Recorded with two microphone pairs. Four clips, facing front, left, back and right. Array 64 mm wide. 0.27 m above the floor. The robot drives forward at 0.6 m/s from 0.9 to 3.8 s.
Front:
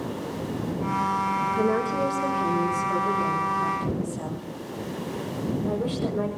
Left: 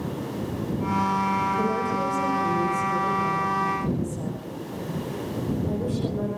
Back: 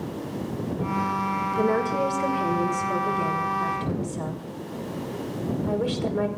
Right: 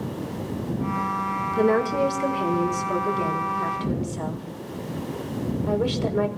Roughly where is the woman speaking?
Right.